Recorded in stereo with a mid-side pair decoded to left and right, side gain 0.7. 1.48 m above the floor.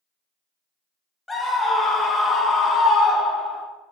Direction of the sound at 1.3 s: 10° left.